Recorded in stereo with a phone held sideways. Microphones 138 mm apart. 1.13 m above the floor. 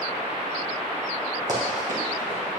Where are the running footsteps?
65° right (ahead or behind), 3.5 m; by 2.6 s 70° right (ahead or behind), 3.5 m.